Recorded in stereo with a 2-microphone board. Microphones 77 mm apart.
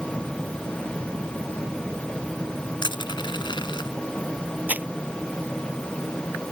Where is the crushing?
75° left (ahead or behind).